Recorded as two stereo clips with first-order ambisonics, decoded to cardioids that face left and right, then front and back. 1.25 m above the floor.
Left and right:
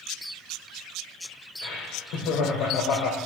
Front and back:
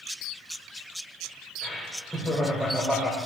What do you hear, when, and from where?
1.6 s laughter: 85° left, 1.7 m